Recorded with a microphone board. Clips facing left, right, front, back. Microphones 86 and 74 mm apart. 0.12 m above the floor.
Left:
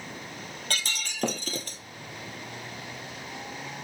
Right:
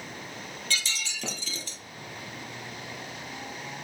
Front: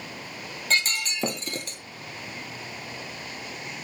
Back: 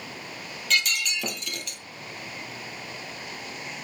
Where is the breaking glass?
55° left, 1.4 m.